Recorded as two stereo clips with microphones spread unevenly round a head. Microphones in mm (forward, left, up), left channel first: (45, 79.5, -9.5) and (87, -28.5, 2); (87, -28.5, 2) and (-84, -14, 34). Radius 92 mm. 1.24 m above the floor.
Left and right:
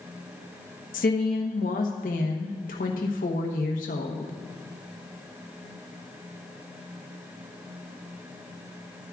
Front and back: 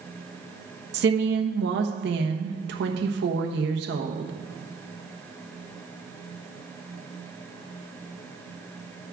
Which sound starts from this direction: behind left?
A woman speaking, at 0.9 s.